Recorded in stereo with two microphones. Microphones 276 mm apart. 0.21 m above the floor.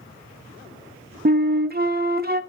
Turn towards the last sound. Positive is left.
turn(degrees=-35)  # may be behind; listen again after turning